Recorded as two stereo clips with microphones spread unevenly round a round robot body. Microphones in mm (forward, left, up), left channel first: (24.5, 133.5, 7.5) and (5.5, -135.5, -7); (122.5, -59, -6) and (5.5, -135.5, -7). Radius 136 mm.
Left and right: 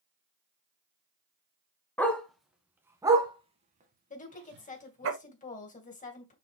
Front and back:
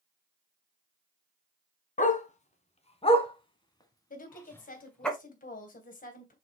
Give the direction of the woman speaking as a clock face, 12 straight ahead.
11 o'clock.